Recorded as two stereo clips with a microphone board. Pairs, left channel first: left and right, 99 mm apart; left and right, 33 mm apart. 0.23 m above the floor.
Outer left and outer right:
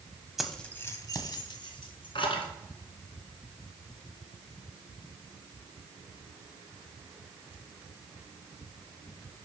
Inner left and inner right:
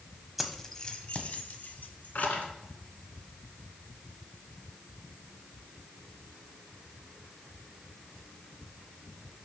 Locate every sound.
0.4 s keys jangling: centre (ahead or behind), 0.7 m; by 2.5 s 65° left (ahead or behind), 1.7 m